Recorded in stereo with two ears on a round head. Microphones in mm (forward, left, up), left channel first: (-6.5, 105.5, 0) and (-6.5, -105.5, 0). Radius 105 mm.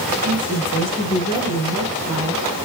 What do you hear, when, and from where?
0.2 s a woman speaking: 15° left (ahead or behind), 8.5 m